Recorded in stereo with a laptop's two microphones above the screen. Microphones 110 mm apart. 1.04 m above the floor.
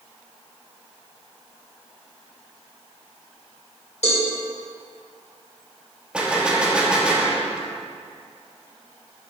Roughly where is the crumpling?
I don't hear crumpling.